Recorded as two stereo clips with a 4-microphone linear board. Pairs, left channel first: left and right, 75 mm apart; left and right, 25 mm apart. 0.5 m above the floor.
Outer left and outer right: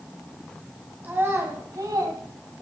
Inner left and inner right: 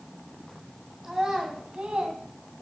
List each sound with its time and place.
1.0 s a child speaking: 25° right (ahead or behind), 2.5 m; by 2.2 s 65° right (ahead or behind), 2.5 m